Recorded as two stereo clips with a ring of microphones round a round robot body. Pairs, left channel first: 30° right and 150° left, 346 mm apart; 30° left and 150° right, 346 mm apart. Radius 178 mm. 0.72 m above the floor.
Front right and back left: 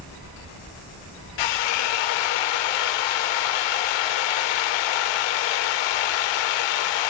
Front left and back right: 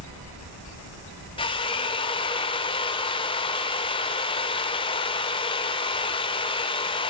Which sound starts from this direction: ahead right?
A drill, at 1.4 s.